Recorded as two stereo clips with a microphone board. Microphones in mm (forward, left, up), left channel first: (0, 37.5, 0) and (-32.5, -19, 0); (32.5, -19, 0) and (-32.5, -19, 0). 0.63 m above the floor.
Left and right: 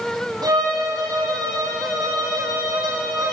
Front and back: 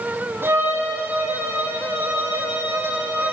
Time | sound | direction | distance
0.4 | a violin | 125° right | 9 m